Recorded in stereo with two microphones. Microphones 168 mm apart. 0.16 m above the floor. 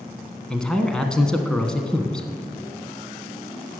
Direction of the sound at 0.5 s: 5° left (ahead or behind).